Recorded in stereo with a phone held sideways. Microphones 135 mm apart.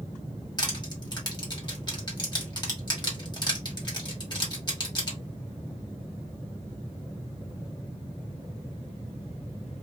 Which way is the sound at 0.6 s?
30° left (ahead or behind).